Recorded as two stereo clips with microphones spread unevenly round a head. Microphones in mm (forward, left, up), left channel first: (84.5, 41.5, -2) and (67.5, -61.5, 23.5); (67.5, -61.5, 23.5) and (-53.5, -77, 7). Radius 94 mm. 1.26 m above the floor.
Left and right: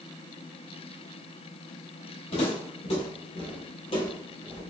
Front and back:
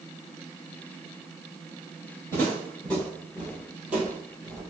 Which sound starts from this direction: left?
Footsteps, at 2.3 s.